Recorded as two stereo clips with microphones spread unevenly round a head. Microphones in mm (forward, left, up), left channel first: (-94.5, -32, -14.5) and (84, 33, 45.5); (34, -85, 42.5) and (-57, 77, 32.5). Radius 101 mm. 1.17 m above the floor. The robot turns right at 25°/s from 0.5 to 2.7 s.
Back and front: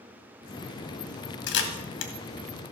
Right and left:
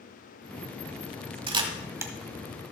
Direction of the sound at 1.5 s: Straight behind.